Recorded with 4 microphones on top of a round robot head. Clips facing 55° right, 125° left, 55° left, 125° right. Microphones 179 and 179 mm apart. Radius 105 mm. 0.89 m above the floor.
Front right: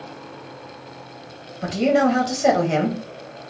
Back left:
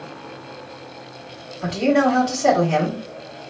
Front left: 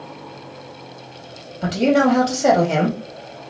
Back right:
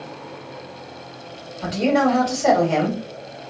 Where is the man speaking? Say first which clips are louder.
Even, front left 3 dB; 5° right, 1.7 m.